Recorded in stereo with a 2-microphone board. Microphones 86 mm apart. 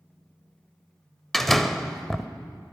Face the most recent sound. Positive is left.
turn(degrees=5)  # may be behind; listen again after turning